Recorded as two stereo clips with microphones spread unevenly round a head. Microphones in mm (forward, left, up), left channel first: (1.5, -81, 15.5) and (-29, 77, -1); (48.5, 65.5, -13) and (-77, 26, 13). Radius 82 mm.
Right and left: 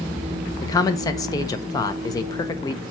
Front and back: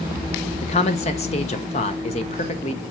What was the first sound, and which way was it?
A man speaking, 10° right.